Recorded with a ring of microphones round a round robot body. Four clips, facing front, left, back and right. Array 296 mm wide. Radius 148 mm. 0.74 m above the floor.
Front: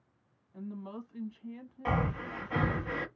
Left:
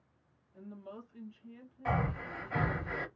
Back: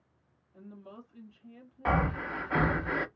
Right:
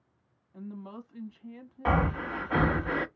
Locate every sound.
0.5 s a woman speaking: 60° right, 1.2 m
1.9 s breathing: 110° right, 0.6 m